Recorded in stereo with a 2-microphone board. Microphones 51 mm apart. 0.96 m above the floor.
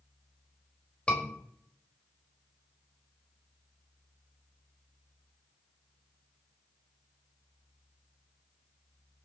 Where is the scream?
25° left (ahead or behind), 4.5 m.